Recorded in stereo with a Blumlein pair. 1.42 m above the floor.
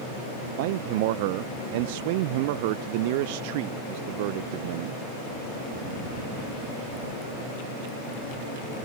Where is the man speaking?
50° right.